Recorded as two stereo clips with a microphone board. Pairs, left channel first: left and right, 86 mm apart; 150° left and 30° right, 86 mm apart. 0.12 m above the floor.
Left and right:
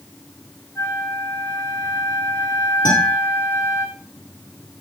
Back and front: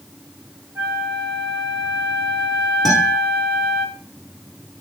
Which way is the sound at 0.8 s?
35° left.